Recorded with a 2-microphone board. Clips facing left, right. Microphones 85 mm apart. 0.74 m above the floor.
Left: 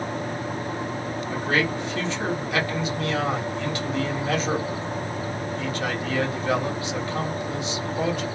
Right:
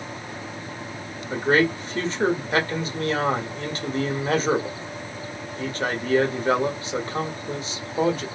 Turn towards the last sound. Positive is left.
turn(degrees=-35)  # may be behind; listen again after turning